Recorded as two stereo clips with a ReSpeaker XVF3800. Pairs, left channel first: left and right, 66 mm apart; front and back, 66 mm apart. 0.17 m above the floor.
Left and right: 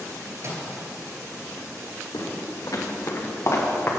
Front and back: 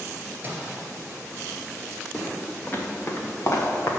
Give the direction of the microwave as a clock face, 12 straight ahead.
4 o'clock.